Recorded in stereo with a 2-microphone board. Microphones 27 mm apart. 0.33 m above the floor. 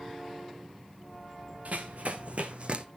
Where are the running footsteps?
70° right (ahead or behind), 1.4 m; by 2.9 s 45° right (ahead or behind), 0.8 m.